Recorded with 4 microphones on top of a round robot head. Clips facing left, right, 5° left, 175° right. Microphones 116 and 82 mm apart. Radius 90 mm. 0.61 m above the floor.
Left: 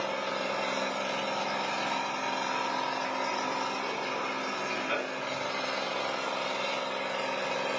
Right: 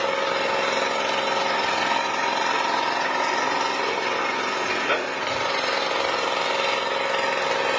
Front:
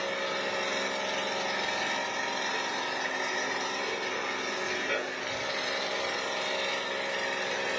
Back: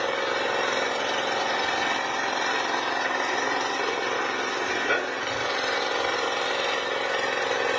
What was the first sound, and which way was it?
An engine running, 120° right.